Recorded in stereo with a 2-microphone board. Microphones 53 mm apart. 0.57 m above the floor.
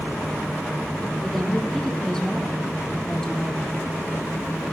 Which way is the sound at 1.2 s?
10° left (ahead or behind).